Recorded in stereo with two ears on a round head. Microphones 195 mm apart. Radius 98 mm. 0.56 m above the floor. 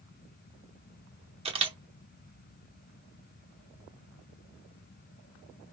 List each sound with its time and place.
1.4 s a camera shutter: 25° right (ahead or behind), 0.9 m